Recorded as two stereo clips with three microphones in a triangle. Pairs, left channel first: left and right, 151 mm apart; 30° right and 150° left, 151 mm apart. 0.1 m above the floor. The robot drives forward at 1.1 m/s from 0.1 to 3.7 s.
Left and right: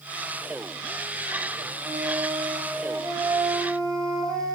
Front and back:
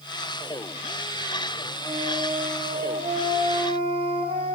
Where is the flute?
145° right, 2 m; by 4.5 s 165° right, 4 m.